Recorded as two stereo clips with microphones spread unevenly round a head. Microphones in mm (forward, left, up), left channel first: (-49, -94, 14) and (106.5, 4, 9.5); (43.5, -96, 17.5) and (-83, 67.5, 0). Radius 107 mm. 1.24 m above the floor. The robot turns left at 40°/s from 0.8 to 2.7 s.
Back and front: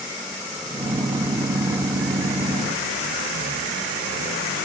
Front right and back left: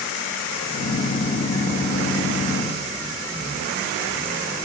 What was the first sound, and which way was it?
Only background noise.